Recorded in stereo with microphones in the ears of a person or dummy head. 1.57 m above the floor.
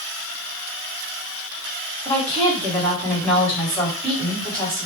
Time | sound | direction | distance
2.0 | a woman speaking | 5° left (ahead or behind) | 1.7 m